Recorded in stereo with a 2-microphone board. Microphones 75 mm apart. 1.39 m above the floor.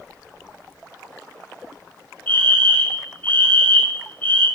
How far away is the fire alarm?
About 5.5 m.